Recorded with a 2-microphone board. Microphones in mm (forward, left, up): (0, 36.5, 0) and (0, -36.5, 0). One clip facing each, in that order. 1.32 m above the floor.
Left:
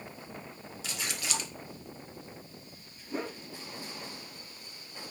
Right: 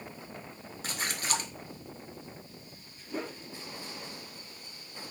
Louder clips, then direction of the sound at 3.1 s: Left 1 dB; 5° left (ahead or behind).